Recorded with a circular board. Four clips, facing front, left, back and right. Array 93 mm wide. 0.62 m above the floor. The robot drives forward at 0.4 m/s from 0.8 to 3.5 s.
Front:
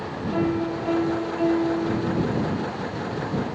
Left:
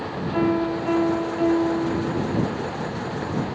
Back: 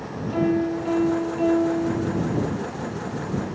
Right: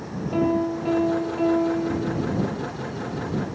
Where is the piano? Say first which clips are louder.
Even, back 3 dB; 100° right, 8.5 m.